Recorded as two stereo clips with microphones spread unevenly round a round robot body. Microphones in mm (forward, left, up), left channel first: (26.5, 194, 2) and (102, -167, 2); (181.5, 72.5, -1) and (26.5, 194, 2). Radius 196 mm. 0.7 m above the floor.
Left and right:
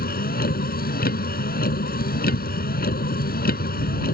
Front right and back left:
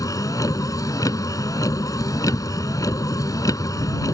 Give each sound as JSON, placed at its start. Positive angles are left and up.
{"t": 0.0, "sound": "a vehicle", "azimuth_deg": 35}